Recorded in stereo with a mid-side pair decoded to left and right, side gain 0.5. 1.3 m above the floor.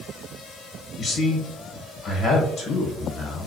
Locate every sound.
1.0 s a man speaking: 55° left, 1.0 m